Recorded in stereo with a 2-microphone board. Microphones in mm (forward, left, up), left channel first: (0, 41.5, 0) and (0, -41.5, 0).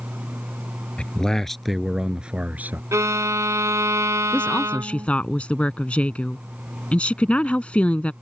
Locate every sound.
1.0 s a man speaking: 10° left (ahead or behind); by 2.8 s 25° right (ahead or behind)
2.9 s a violin: 40° right (ahead or behind)
4.3 s a woman speaking: 15° left (ahead or behind)